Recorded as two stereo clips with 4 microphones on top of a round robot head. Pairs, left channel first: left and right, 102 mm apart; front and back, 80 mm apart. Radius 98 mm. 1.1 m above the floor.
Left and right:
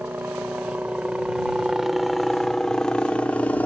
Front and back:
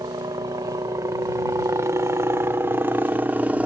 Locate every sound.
0.0 s a helicopter: 160° right; by 3.7 s 140° left